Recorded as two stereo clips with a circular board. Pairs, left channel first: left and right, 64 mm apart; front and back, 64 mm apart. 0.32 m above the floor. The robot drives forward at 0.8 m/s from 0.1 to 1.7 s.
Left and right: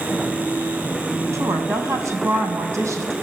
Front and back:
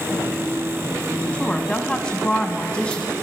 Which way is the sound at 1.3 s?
65° right.